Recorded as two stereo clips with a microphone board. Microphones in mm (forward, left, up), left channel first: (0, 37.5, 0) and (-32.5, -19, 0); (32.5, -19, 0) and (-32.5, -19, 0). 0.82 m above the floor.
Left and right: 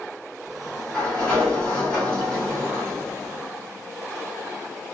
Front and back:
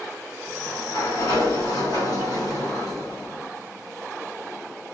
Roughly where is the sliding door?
Ahead.